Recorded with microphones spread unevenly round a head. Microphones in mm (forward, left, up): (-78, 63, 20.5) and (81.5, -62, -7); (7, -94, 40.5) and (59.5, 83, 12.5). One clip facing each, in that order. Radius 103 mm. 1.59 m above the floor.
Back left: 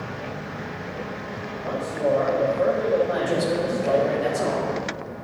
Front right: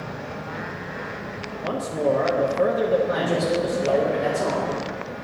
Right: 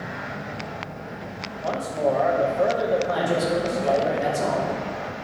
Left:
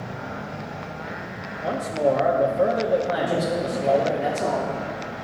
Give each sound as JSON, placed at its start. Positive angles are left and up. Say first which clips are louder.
{"t": 1.6, "sound": "a man speaking", "louder": "front right 1 dB, left 2 dB", "azimuth_deg": 5, "distance_m": 0.9}
{"t": 3.1, "sound": "a woman speaking", "louder": "even, right 1 dB", "azimuth_deg": -150, "distance_m": 3.0}